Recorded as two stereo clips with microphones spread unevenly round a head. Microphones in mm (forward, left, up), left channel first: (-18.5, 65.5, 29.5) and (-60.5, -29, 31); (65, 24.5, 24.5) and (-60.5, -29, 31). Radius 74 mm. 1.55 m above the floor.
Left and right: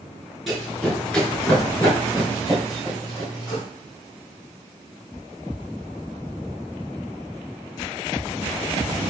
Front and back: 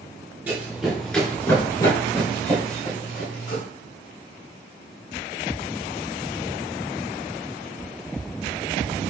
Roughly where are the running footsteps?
Behind.